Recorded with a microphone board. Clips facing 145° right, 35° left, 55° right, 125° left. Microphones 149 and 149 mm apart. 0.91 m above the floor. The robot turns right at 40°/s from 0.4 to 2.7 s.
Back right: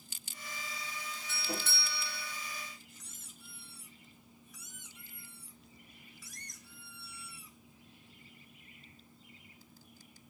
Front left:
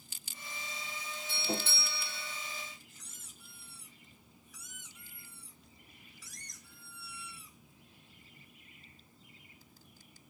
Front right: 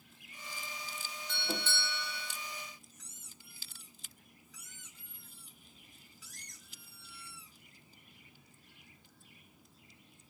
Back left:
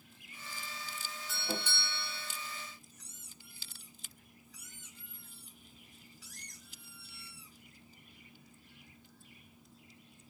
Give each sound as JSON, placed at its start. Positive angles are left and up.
{"t": 1.3, "sound": "a doorbell", "azimuth_deg": 45, "distance_m": 0.9}
{"t": 2.9, "sound": "a squeak", "azimuth_deg": 180, "distance_m": 2.0}